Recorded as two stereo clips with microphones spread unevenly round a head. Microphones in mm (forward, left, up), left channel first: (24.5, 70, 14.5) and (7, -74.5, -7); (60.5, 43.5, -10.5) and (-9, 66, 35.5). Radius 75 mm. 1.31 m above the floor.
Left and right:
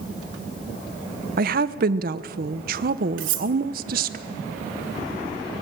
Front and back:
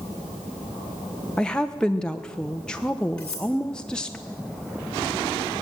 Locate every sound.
1.4 s a woman speaking: 85° right, 1.0 m
3.2 s cutlery clinking: 105° right, 2 m